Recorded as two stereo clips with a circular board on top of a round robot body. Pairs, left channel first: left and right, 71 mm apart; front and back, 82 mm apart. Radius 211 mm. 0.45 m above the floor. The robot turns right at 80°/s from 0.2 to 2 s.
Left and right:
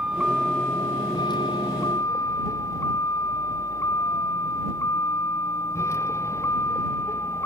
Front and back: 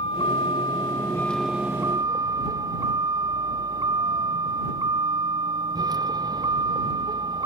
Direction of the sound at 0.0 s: 10° right.